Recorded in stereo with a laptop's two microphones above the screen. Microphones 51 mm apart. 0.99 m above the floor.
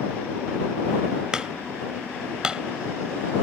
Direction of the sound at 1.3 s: 15° right (ahead or behind).